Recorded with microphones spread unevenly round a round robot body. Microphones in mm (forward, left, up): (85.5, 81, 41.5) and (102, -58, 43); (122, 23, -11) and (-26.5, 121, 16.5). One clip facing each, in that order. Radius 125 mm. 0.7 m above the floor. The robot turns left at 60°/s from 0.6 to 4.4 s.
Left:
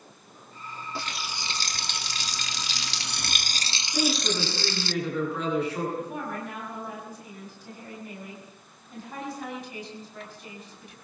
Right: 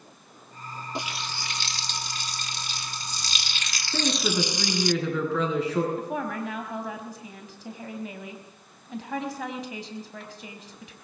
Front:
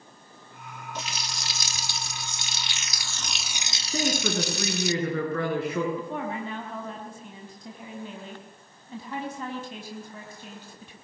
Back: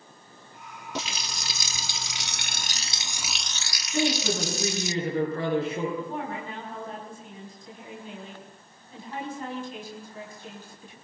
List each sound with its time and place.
0.9 s a running tap: 160° right, 0.8 m; by 4.9 s 10° right, 0.8 m
3.9 s a man speaking: 60° right, 9.5 m; by 5.9 s 90° right, 9.5 m
6.0 s a woman speaking: 80° right, 5 m